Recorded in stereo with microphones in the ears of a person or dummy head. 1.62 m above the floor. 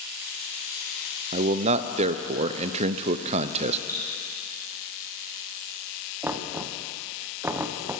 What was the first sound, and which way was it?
A man speaking, 35° right (ahead or behind).